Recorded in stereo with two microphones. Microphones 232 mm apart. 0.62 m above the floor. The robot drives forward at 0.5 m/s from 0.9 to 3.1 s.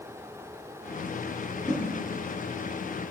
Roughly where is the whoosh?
Centre.